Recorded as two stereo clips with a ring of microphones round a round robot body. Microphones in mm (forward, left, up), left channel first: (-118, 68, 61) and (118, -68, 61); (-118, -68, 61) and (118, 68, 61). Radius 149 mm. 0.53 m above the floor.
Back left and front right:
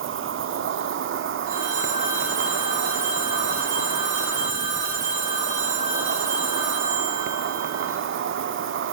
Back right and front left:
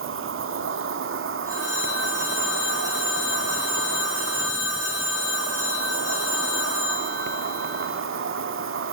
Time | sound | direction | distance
0.0 | an insect | straight ahead | 1.1 m
1.5 | a phone ringing | 50° right | 7.5 m